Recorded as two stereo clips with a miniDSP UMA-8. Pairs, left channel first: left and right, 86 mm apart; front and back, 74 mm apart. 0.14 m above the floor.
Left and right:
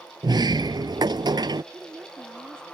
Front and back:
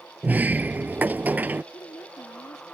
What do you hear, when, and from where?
0.2 s a sliding door: 115° right
1.7 s a woman speaking: 25° right